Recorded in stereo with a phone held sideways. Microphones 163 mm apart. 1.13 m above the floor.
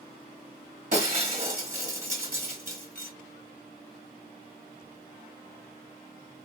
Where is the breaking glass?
55° right (ahead or behind), 1.6 m.